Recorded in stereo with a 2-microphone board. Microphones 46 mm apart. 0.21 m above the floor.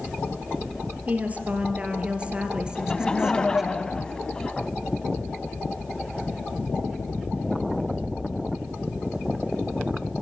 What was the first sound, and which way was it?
A woman speaking, 30° right (ahead or behind).